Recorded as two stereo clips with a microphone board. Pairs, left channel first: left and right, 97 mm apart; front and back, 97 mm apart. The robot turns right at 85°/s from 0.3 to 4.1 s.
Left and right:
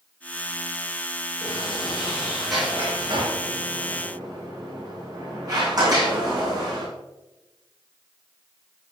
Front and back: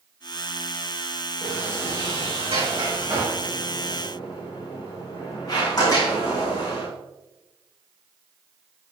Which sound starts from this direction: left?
A sliding door, at 1.4 s.